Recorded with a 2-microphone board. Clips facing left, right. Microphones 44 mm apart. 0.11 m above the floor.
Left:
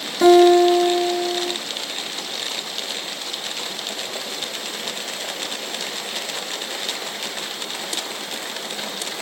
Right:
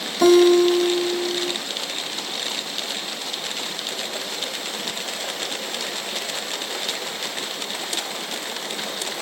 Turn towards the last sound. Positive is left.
turn(degrees=10)  # may be behind; listen again after turning